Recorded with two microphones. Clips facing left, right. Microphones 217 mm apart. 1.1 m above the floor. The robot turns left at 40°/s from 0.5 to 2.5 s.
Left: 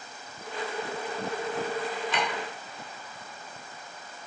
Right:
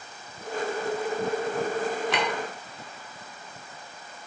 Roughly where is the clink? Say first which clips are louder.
Right 3 dB; right.